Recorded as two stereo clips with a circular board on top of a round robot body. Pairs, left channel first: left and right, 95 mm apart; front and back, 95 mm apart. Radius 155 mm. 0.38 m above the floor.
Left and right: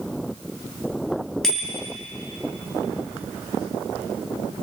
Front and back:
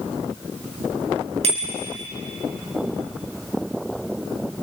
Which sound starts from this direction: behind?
A bicycle bell, at 1.4 s.